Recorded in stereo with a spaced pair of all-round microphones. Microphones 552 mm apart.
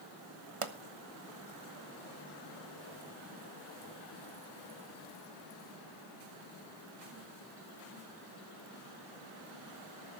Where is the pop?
65° right (ahead or behind), 1.2 m.